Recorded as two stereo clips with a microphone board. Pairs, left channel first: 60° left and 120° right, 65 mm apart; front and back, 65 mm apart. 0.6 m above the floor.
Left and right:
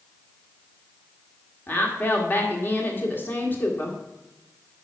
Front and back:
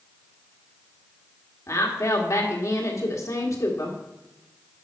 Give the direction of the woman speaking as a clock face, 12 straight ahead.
12 o'clock.